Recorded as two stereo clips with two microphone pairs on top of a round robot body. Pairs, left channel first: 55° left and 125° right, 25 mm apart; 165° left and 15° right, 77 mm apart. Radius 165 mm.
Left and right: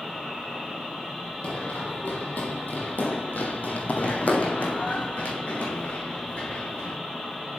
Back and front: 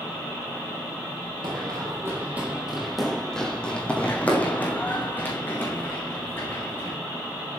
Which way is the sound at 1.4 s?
15° left.